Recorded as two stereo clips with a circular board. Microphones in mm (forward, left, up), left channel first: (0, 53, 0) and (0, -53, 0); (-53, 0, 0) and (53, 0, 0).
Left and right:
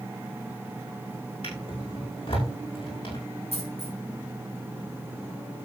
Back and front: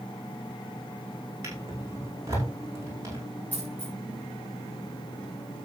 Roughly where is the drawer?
Ahead left.